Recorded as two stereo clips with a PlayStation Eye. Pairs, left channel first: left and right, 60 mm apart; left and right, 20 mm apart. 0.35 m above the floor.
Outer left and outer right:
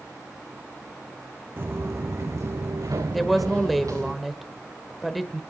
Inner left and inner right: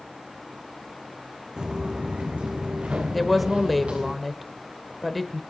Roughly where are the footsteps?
Right.